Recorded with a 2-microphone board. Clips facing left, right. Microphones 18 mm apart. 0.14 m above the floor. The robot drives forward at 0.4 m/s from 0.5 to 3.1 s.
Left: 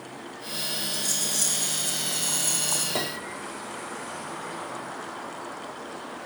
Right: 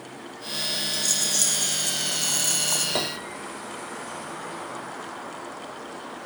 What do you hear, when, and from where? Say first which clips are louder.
0.9 s a rattle: right 4 dB; 55° right (ahead or behind), 9 m; by 2.9 s 60° right (ahead or behind), 9 m
3.0 s a piano: right 2 dB; 15° right (ahead or behind), 1.8 m